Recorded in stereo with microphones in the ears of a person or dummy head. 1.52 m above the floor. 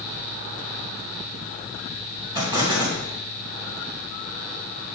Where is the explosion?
20° right (ahead or behind), 2 m.